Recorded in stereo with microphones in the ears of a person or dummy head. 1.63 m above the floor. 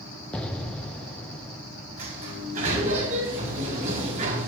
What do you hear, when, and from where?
0.3 s an explosion: 5° left (ahead or behind), 1.0 m
2.0 s a sliding door: 45° right (ahead or behind), 5.5 m